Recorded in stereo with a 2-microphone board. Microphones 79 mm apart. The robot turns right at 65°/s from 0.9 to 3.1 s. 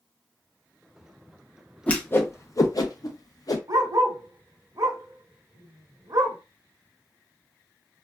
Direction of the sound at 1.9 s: 15° left (ahead or behind).